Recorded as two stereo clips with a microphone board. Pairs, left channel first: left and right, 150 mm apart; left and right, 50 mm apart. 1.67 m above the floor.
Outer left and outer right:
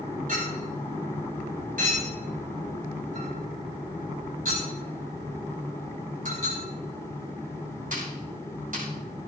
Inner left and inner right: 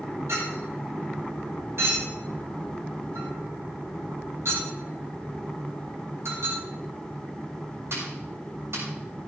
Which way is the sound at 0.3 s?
65° right (ahead or behind).